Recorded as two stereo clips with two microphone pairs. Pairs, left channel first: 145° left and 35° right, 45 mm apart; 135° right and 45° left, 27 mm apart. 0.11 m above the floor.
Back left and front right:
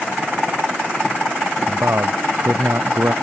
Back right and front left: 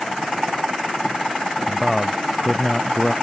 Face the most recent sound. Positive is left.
turn(degrees=-55)